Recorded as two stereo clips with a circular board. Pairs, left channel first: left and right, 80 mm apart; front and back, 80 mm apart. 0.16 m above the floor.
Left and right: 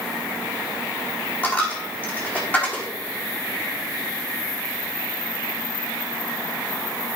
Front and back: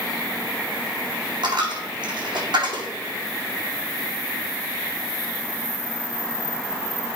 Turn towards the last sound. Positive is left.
turn(degrees=160)